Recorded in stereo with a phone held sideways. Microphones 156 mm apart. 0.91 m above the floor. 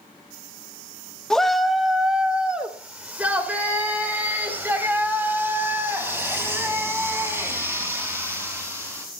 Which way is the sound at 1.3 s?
5° left (ahead or behind).